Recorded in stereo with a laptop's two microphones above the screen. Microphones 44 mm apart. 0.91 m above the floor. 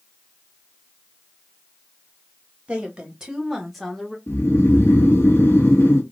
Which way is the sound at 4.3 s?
65° left (ahead or behind).